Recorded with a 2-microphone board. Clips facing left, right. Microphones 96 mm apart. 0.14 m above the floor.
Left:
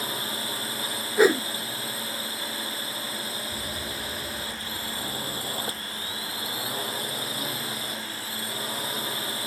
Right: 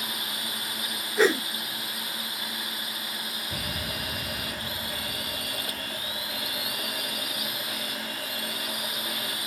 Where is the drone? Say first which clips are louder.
Left 4 dB; 30° left (ahead or behind).